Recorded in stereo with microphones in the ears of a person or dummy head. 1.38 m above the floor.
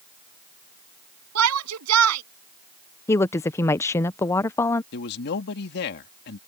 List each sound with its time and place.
1.4 s a shout: 90° right
3.1 s a woman speaking: 20° left (ahead or behind)
4.9 s a man speaking: 55° left (ahead or behind)